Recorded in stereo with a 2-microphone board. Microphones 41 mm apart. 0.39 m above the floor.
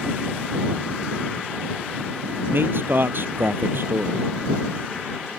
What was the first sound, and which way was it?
A man speaking, 60° right (ahead or behind).